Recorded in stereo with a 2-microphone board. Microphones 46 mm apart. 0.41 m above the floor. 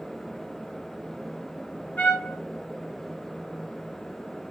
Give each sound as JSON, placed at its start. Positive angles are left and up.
{"t": 2.0, "sound": "a trumpet", "side_deg": 50, "distance_m": 1.1}